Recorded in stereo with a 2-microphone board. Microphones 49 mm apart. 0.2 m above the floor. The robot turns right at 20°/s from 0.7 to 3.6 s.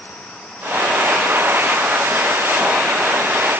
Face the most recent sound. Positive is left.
No sound to turn to.